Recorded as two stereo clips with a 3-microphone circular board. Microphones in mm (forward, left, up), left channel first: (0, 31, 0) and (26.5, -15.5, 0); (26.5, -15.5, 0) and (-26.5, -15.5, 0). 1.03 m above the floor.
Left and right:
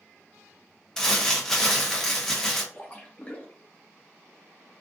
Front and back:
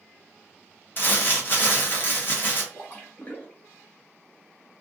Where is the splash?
55° left, 0.8 m.